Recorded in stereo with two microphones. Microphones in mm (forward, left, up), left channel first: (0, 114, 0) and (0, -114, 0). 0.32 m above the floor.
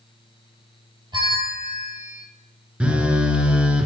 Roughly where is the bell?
Centre.